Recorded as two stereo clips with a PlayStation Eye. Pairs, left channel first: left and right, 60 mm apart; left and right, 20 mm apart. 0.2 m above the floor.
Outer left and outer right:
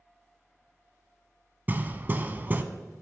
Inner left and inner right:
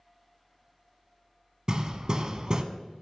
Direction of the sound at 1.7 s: 35° right (ahead or behind).